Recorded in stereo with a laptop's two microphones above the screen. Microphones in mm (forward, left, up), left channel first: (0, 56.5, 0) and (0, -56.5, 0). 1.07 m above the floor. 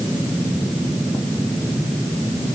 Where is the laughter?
No laughter in this recording.